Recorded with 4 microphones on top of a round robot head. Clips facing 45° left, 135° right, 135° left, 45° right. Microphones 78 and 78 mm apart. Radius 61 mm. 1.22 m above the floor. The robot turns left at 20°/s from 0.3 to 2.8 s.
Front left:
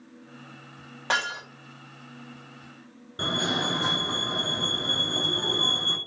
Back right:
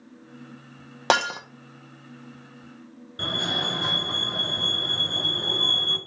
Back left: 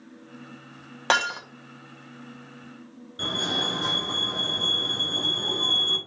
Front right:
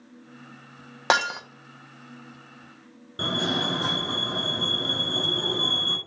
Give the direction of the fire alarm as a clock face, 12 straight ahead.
12 o'clock.